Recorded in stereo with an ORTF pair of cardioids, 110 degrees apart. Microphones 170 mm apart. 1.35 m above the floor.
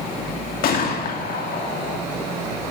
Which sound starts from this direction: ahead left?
A gunshot, at 0.6 s.